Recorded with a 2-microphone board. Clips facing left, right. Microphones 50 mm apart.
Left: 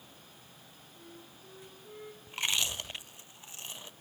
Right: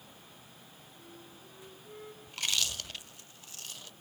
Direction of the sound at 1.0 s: 5° left (ahead or behind).